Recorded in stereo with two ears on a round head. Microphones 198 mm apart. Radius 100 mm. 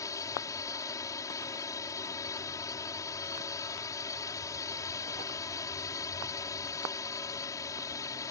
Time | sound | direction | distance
0.0 | a drone | 15° left (ahead or behind) | ?